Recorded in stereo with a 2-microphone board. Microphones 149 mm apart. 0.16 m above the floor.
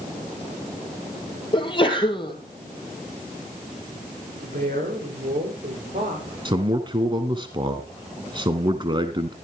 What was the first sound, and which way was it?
A sneeze, 35° left (ahead or behind).